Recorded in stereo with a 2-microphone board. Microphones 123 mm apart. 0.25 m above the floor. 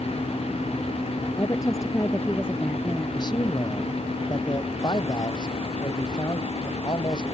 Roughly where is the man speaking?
Left.